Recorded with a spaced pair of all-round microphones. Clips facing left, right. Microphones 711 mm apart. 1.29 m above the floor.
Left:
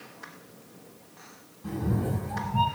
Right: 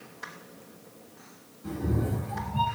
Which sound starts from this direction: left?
A cat meowing, at 1.6 s.